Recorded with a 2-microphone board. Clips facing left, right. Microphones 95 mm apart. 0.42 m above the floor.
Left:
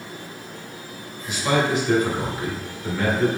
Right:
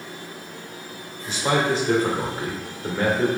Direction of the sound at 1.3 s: 35° right (ahead or behind).